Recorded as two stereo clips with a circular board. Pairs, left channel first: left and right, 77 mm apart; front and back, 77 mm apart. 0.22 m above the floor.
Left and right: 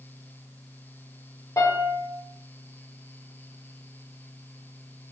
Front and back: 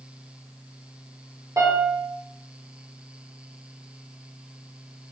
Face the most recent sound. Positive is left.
turn(degrees=140)